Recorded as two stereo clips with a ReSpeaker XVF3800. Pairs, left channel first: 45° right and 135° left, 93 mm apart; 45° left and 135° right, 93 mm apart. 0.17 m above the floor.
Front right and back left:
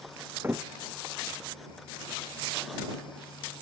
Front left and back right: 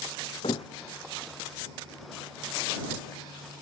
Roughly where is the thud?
Left.